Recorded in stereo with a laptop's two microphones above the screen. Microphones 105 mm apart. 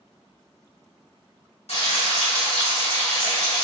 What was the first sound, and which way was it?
Frying, 80° left.